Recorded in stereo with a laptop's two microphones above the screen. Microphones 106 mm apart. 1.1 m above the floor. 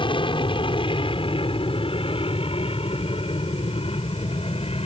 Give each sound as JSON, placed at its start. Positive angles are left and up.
{"t": 0.0, "sound": "an aircraft", "side_deg": 55}